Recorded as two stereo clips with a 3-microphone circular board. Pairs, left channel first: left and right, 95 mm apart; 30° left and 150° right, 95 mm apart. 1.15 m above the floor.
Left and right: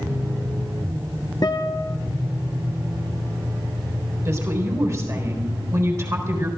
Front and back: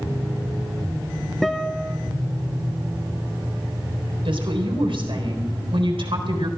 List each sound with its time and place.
1.4 s a guitar: 115° left, 1.0 m
4.2 s a woman speaking: 145° right, 4 m